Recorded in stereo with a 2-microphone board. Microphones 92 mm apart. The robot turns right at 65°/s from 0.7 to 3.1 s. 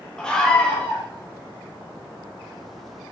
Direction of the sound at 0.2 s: 10° left (ahead or behind).